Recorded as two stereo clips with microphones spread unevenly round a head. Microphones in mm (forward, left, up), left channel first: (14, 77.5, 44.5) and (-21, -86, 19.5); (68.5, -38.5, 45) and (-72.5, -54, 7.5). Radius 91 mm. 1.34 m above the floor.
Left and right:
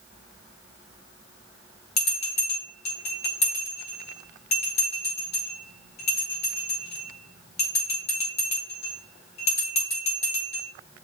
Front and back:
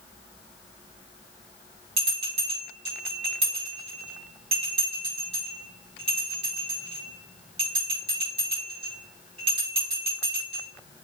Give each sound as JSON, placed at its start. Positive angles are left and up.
{"t": 2.0, "sound": "a bell", "azimuth_deg": 135, "distance_m": 4.0}